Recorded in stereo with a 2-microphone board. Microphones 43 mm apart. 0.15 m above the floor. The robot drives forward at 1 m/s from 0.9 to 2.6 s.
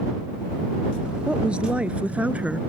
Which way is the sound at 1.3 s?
25° right (ahead or behind).